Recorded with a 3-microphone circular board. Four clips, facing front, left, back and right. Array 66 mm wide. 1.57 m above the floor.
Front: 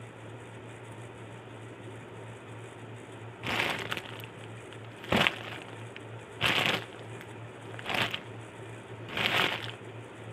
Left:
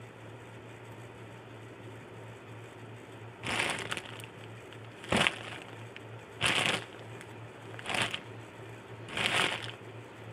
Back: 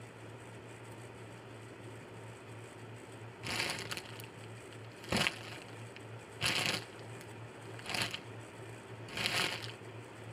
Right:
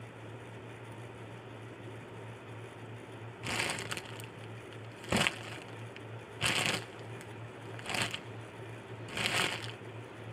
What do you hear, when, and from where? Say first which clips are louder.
3.4 s crumpling: left 3 dB, front 8 dB; 20° left